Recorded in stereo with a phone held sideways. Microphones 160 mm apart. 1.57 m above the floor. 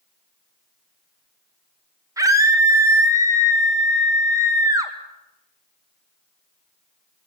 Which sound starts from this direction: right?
A scream, at 2.2 s.